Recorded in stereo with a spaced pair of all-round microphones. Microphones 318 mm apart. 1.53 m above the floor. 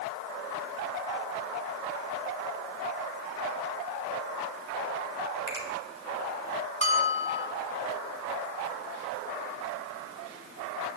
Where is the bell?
20° left (ahead or behind), 1.6 m.